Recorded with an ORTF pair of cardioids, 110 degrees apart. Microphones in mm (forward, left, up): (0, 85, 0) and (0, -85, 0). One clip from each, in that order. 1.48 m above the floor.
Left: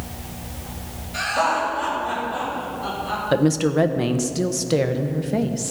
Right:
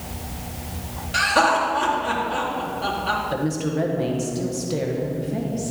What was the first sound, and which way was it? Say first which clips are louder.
Laughter: right 3 dB; 60° right.